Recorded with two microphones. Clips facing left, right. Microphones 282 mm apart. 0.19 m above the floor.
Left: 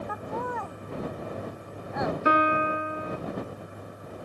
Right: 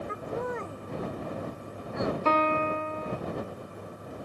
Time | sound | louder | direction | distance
0.1 | laughter | right 3 dB | 25° right (ahead or behind) | ?
2.2 | a piano | left 3 dB | 15° left (ahead or behind) | ?